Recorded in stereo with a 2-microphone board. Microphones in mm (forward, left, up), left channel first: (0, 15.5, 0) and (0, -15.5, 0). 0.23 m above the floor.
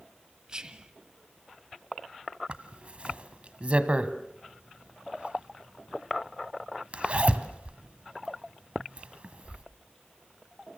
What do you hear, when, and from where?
0.5 s whispering: 25° right (ahead or behind), 1.4 m
2.5 s a zipper: 40° right (ahead or behind), 1.4 m